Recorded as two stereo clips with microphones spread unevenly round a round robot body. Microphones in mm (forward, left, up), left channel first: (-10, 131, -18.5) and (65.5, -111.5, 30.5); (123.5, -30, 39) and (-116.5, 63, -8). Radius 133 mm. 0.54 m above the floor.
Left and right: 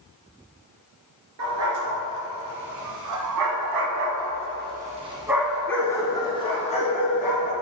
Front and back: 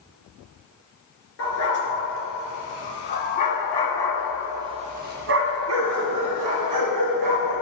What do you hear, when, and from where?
1.4 s a dog barking: 55° right, 2 m; by 7.5 s 170° left, 1.9 m